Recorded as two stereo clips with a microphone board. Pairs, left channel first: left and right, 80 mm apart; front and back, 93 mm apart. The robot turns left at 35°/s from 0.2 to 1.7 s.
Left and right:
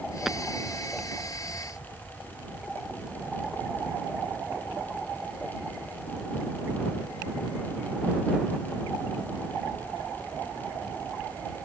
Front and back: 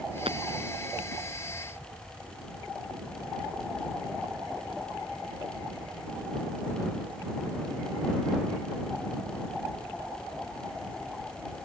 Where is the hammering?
175° right; by 0.4 s straight behind.